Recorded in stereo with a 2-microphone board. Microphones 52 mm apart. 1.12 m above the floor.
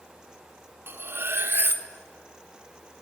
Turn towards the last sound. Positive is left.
turn(degrees=-45)  # may be behind; listen again after turning